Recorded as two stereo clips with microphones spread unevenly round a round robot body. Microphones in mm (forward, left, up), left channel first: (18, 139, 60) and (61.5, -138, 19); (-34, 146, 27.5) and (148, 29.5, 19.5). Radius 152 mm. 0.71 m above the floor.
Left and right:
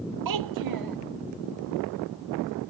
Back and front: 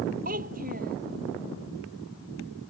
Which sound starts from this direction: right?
A child speaking, at 0.2 s.